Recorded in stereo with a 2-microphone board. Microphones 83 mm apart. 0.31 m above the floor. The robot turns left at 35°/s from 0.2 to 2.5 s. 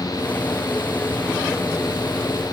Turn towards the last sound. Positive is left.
No sound to turn to.